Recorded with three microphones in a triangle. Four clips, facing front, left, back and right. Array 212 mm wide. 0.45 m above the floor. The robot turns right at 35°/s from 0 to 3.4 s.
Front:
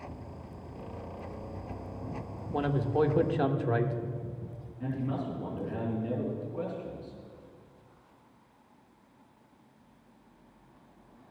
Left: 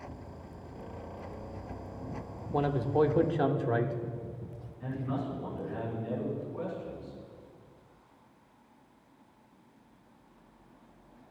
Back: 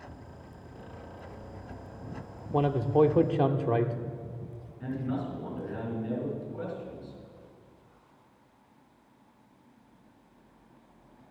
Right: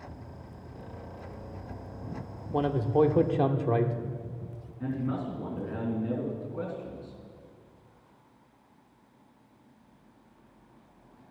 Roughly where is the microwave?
No microwave in this recording.